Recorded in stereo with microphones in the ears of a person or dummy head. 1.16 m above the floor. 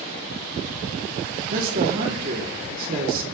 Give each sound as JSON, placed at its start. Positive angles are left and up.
{"t": 1.5, "sound": "a man speaking", "side_deg": -50, "distance_m": 3.0}